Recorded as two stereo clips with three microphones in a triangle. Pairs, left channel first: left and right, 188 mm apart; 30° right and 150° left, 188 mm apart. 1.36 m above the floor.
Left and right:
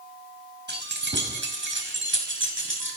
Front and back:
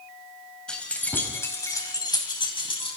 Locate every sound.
0.7 s keys jangling: 115° right, 5.5 m; by 3.0 s 90° right, 6.5 m